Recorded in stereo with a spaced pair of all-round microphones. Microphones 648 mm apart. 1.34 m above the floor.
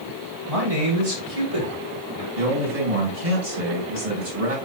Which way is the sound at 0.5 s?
60° right (ahead or behind).